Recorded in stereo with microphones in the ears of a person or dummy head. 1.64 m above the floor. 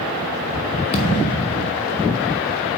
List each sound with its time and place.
0.9 s a thud: 25° left (ahead or behind), 1.0 m